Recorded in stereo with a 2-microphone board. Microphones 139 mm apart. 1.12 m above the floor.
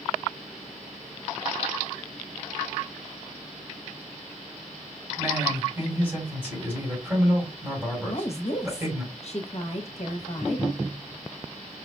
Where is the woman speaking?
50° left (ahead or behind), 1.1 m.